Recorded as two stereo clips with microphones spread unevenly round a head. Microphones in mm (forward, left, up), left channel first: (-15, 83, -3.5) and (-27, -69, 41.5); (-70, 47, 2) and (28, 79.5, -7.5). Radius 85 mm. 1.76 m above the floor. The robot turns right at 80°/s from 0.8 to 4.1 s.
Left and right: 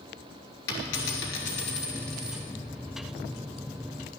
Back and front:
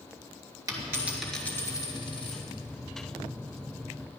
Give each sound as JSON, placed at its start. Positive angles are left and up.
{"t": 0.7, "sound": "a dropped coin", "azimuth_deg": 75, "distance_m": 3.5}